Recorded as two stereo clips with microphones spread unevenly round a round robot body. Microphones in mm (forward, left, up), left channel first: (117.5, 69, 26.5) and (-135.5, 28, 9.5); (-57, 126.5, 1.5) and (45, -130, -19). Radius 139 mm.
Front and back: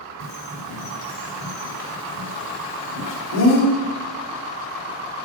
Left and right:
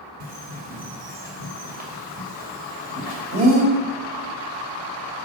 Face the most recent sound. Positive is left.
turn(degrees=-10)